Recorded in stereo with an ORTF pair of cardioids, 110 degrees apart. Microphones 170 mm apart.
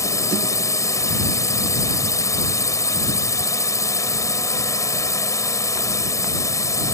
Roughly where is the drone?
Ahead.